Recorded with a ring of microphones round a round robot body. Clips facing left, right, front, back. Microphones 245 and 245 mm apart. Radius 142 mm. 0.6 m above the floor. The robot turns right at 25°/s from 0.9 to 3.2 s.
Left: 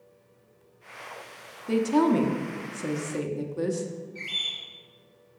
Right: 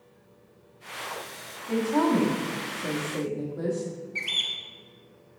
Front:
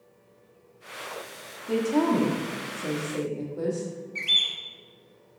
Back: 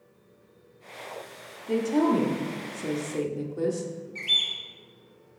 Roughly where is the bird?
Right.